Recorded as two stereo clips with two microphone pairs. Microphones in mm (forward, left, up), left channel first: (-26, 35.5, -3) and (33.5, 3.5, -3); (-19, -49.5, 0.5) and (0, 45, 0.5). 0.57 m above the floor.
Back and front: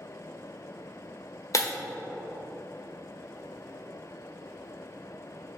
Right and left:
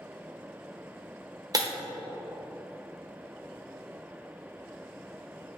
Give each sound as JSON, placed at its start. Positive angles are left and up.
{"t": 1.5, "sound": "breaking glass", "azimuth_deg": 125, "distance_m": 1.1}